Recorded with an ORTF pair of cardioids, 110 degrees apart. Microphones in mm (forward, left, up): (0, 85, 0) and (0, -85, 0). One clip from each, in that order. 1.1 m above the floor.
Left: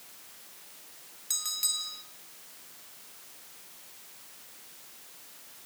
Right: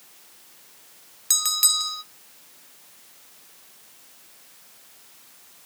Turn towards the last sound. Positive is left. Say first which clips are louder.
# right 10 dB
turn(degrees=-50)